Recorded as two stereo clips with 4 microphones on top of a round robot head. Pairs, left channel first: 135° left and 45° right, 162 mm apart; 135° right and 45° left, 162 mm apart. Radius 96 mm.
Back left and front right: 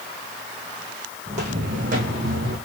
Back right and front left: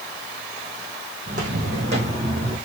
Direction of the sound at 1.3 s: 5° left.